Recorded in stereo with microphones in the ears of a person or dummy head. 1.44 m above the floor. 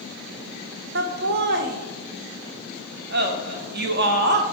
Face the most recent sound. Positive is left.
turn(degrees=-50)  # may be behind; listen again after turning